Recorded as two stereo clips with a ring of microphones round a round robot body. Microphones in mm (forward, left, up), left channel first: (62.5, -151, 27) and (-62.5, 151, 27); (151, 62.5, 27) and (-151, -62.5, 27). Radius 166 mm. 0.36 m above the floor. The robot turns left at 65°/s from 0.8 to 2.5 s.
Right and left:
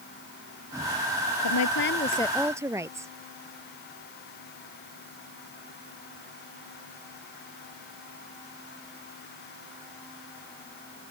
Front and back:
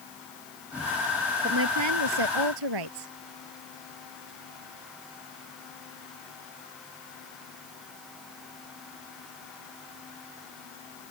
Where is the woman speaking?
95° right; by 3.1 s 165° right.